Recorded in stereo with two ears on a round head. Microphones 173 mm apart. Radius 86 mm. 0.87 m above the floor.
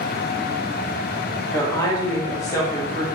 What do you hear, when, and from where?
1.5 s a woman speaking: 20° left (ahead or behind), 0.9 m; by 3.1 s 15° left (ahead or behind), 1.0 m